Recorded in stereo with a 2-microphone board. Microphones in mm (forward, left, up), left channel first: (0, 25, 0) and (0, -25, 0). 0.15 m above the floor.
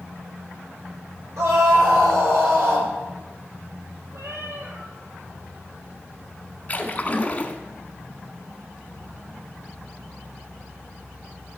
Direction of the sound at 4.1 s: 70° right (ahead or behind).